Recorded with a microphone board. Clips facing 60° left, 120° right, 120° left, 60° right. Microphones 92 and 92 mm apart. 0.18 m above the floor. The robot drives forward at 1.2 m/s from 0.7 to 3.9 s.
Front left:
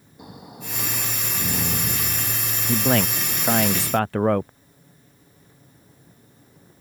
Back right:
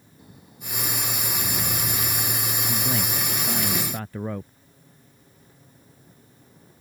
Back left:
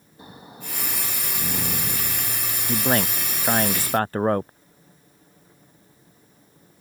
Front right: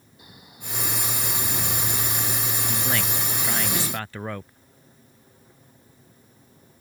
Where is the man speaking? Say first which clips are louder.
Front left 10 dB, back left 8 dB; 65° left; by 4.5 s 75° left.